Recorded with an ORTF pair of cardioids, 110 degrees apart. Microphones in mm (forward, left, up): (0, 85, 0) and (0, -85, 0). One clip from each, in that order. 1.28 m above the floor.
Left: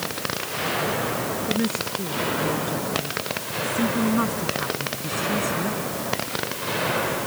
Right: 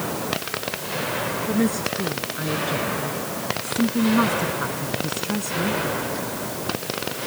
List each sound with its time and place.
1.5 s a woman speaking: 20° right